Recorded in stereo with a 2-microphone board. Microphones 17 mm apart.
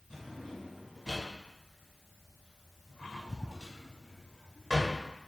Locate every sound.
0.1 s a drawer: 40° right (ahead or behind), 1.2 m